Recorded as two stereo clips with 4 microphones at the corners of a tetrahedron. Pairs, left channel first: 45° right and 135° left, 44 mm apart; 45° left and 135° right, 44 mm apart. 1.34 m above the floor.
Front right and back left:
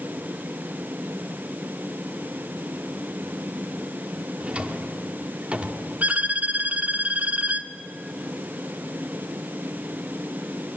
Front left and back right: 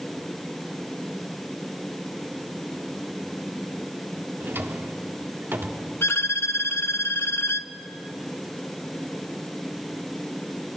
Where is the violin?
75° left, 0.9 m.